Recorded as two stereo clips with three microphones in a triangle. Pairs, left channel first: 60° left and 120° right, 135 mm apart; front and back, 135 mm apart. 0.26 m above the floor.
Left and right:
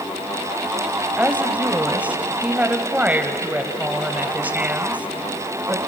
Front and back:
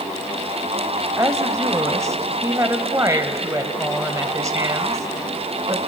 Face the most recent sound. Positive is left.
turn(degrees=180)